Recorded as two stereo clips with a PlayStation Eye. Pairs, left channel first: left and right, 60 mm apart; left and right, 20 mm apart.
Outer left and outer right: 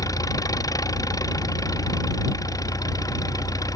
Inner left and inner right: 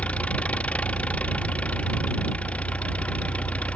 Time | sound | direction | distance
0.0 | an engine running | 80° left | ?